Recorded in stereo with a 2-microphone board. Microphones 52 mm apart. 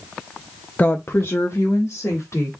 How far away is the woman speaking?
About 0.5 m.